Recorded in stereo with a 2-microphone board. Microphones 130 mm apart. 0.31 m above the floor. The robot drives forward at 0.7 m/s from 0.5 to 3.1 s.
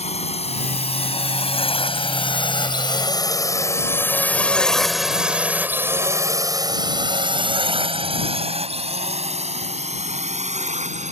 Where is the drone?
55° left (ahead or behind); by 11.1 s 65° right (ahead or behind).